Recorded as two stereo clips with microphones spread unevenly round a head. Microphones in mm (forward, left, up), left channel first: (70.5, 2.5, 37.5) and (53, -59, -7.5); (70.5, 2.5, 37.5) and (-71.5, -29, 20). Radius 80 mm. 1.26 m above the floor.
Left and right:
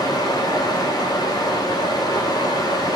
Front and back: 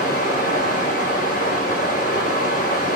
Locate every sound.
0.0 s running water: 50° left, 1.2 m